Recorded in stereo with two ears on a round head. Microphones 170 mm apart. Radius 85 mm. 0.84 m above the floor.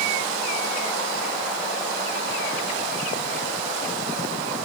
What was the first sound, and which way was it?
Only background noise.